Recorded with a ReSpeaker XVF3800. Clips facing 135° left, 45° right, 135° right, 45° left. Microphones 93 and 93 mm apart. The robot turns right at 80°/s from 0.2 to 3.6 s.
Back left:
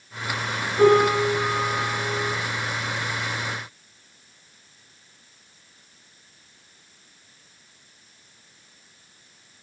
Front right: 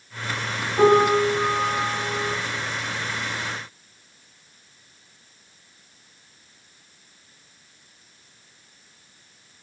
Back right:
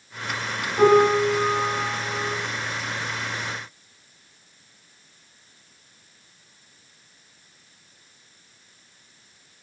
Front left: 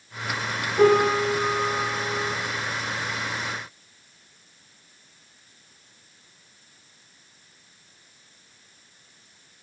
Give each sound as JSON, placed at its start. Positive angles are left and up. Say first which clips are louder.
{"t": 0.8, "sound": "a piano", "louder": "even, back right 2 dB", "azimuth_deg": -75, "distance_m": 1.1}